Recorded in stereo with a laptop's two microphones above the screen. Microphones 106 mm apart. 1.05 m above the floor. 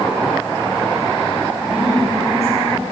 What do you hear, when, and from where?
1.7 s a woman speaking: 75° right (ahead or behind), 6.5 m